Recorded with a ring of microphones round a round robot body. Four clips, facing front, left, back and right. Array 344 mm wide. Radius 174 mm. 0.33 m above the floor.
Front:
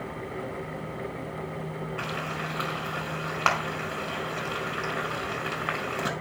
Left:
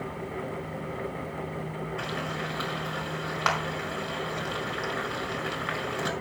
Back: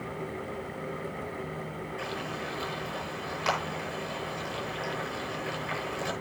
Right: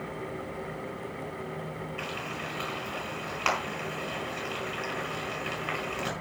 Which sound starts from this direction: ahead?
Frying, at 2.0 s.